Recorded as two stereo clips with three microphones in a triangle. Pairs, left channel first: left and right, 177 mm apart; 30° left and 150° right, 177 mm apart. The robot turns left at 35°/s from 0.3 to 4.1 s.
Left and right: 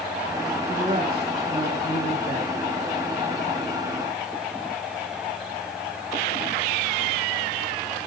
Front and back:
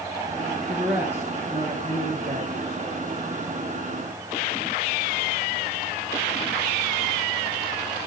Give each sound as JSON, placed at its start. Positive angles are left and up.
{"t": 0.7, "sound": "a man speaking", "azimuth_deg": -60, "distance_m": 3.0}